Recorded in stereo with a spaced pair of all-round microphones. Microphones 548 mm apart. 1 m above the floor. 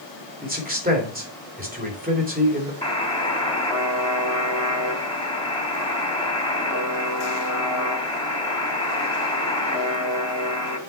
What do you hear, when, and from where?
0.4 s a man speaking: 15° right (ahead or behind), 3 m
2.8 s a buzzer: 10° left (ahead or behind), 2.5 m